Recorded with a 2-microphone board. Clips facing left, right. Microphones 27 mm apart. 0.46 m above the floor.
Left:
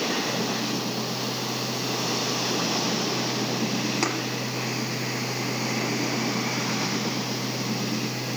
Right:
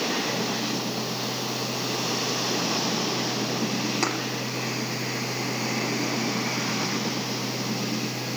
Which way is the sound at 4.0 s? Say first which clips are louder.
Even; centre (ahead or behind).